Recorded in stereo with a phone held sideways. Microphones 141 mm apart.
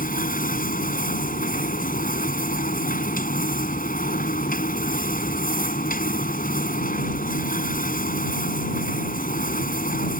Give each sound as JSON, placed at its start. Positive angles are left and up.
{"t": 0.0, "sound": "a machine running", "side_deg": 80}